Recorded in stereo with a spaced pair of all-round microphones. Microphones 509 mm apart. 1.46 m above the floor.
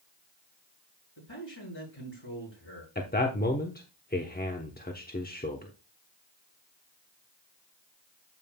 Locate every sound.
1.2 s a man speaking: 60° left (ahead or behind), 6.5 m
3.0 s a man speaking: 20° left (ahead or behind), 1.0 m